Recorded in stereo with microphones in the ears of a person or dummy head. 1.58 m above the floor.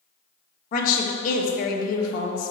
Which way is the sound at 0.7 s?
45° left (ahead or behind).